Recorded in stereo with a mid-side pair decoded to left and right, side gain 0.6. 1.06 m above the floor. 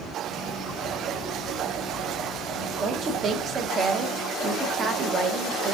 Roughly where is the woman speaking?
Ahead right.